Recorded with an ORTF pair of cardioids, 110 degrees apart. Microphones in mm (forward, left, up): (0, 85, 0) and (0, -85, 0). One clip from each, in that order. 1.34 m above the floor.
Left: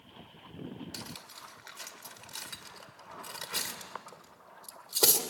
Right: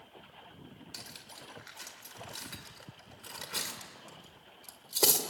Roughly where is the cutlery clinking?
Ahead.